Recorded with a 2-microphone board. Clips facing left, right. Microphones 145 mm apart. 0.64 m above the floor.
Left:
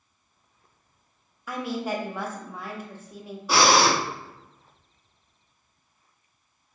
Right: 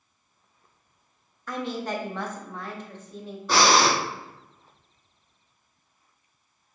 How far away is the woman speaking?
About 0.7 m.